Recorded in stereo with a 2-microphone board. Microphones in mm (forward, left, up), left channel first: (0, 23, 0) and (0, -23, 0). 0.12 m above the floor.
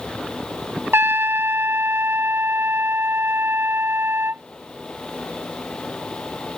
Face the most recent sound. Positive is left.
turn(degrees=-60)  # may be behind; listen again after turning